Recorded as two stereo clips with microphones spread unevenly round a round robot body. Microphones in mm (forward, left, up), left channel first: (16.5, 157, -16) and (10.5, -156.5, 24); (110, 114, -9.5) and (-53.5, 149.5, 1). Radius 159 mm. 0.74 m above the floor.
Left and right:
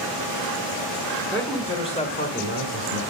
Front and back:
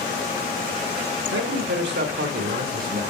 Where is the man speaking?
175° left, 2 m; by 3.0 s 135° left, 3 m.